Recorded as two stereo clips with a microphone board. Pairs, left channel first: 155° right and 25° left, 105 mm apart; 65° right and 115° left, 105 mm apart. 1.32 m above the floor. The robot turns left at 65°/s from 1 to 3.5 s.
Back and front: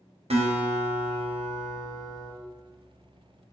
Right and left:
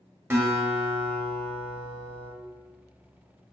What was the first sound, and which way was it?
A guitar, 45° left.